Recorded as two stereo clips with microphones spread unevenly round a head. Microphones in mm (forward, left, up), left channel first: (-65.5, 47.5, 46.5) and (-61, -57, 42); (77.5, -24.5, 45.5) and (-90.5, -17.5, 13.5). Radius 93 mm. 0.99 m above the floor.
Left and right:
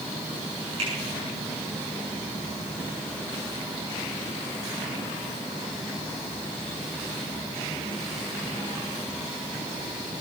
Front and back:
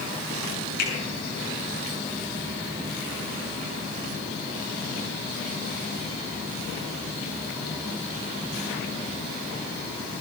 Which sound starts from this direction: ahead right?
A finger snap, at 0.8 s.